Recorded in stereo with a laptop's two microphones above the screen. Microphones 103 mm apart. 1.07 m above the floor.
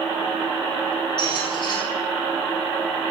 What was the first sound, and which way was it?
A squeak, 50° left (ahead or behind).